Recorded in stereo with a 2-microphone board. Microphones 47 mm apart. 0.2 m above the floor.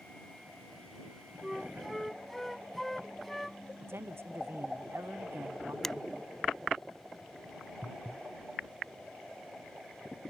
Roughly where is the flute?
Centre.